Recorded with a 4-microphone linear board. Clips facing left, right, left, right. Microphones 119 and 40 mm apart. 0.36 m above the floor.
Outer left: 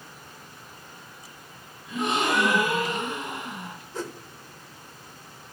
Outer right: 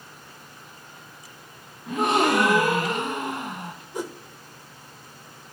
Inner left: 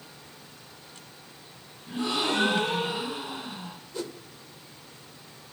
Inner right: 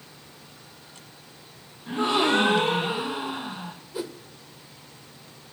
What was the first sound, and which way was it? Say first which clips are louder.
A gasp: outer right 5 dB, inner right 6 dB; 65° right (ahead or behind).